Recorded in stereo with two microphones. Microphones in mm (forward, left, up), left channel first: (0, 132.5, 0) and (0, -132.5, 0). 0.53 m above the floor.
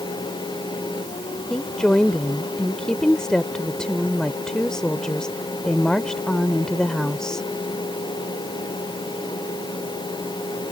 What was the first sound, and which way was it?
A woman speaking, 5° left (ahead or behind).